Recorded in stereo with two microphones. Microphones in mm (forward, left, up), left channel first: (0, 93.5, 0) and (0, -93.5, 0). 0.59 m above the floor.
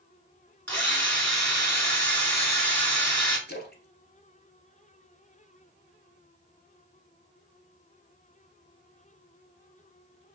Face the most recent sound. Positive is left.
turn(degrees=55)  # may be behind; listen again after turning